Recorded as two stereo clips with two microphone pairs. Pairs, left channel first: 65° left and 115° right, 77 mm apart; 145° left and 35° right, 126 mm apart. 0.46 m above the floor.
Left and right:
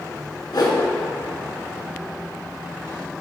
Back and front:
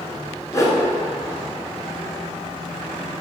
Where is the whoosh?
85° left, 1.1 m.